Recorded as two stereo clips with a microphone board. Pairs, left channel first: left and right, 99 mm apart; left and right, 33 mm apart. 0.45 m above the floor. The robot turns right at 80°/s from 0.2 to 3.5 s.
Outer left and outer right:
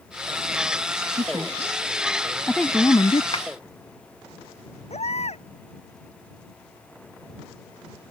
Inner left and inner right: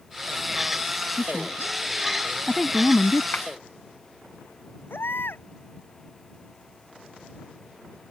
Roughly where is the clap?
Left.